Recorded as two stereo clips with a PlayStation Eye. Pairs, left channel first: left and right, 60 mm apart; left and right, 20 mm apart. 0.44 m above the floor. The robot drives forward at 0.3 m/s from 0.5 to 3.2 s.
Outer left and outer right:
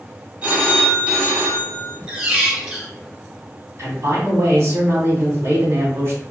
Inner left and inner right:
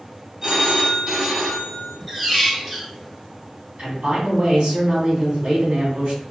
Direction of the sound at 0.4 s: 30° right (ahead or behind).